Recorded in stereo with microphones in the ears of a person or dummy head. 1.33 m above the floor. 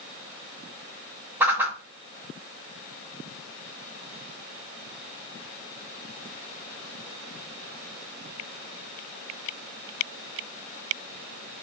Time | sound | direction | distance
1.4 | a whoosh | 5° right (ahead or behind) | 0.9 m